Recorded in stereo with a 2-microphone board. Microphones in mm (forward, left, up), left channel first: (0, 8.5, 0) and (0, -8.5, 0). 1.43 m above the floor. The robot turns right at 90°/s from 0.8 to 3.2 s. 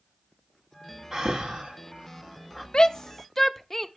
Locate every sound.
1.1 s breathing: 35° right (ahead or behind), 2 m; by 2.6 s 5° right (ahead or behind), 2 m
2.7 s a shout: 60° left (ahead or behind), 0.9 m; by 3.9 s 20° left (ahead or behind), 0.9 m